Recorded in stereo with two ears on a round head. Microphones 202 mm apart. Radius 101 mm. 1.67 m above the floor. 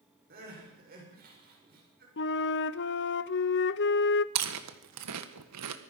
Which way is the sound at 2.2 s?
55° left (ahead or behind).